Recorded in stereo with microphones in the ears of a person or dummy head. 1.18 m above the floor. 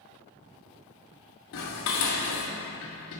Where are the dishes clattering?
70° left (ahead or behind), 1.0 m.